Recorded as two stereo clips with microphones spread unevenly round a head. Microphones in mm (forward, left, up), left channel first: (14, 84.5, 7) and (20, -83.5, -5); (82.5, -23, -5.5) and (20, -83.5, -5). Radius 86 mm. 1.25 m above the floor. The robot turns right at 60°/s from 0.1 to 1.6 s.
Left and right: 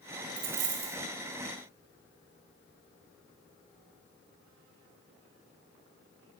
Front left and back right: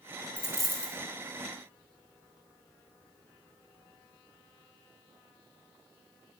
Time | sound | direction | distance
0.4 | a dropped coin | 65° right | 3 m